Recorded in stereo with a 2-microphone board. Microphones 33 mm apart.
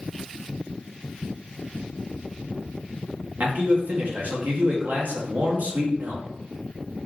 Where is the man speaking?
55° right (ahead or behind), 0.7 m.